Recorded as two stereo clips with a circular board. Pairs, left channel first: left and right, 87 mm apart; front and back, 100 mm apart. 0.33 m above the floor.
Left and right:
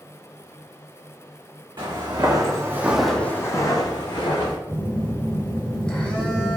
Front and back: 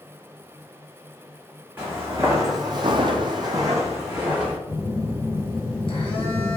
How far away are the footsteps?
About 1.0 m.